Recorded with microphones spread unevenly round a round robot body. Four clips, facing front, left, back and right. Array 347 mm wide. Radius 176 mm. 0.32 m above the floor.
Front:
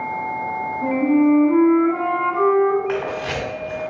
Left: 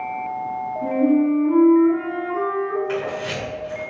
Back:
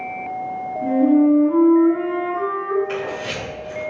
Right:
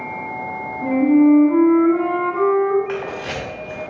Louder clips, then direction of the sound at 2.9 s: Even, front 2 dB; 45° right.